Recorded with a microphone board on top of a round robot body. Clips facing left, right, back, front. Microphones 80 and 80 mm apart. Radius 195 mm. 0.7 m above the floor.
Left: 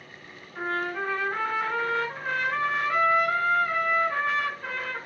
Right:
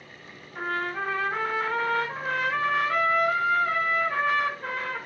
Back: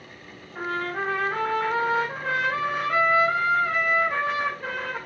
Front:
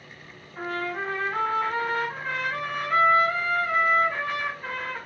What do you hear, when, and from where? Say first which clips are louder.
0.6 s a trumpet: even, back 2 dB; 170° right, 3 m